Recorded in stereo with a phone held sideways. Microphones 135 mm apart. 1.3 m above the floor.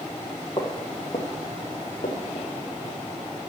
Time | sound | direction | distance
0.6 | footsteps | 30° left (ahead or behind) | 1.6 m